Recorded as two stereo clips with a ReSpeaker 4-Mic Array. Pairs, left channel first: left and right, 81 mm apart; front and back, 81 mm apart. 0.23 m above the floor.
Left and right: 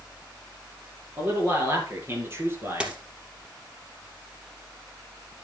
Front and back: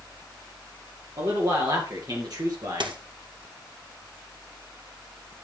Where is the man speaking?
145° right, 6 m; by 3.0 s 150° right, 3.5 m.